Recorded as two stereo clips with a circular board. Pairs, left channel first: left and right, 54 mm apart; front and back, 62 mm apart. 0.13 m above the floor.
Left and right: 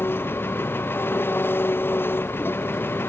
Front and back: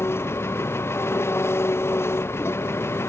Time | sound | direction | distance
0.0 | an engine running | 45° left | ?